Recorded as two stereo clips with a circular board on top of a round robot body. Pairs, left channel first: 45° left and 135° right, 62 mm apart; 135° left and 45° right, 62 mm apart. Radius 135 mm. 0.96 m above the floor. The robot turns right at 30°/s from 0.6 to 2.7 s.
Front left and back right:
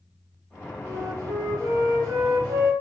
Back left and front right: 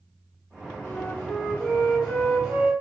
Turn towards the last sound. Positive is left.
turn(degrees=-105)